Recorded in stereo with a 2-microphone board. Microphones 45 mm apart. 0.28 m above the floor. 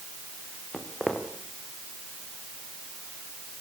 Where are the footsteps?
20° left (ahead or behind), 4 m.